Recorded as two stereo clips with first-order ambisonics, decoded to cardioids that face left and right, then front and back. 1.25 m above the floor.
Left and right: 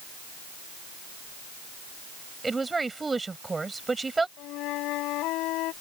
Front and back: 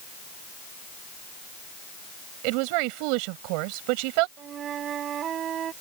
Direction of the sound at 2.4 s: 170° right.